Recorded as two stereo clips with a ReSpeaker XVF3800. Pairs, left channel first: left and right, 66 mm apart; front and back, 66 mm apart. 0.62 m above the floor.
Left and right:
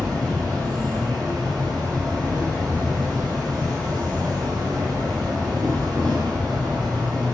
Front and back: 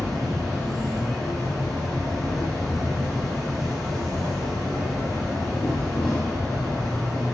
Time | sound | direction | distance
0.0 | an insect | 85° right | 2 m